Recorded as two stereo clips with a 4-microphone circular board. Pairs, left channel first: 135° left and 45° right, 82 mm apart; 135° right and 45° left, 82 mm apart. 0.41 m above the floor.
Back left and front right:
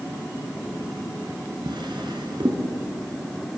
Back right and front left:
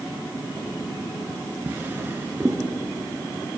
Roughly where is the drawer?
Ahead.